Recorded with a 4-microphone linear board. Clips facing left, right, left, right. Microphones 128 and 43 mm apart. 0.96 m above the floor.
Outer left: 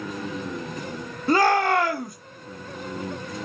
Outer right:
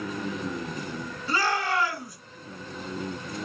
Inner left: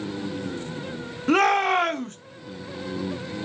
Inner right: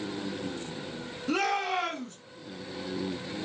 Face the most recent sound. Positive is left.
turn(degrees=50)  # may be behind; listen again after turning